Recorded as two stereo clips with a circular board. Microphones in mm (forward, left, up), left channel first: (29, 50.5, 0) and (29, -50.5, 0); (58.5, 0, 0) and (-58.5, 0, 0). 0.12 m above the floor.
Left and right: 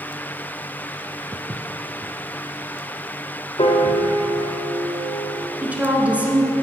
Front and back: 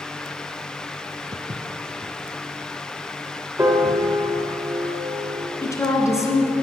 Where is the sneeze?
I don't hear a sneeze.